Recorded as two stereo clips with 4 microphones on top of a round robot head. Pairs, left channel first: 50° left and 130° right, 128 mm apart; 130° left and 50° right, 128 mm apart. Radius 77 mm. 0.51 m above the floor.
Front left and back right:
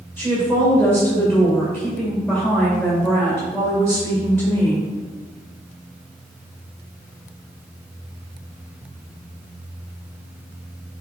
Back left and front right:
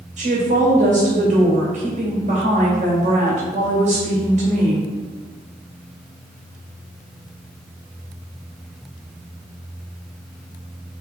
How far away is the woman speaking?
About 2.5 m.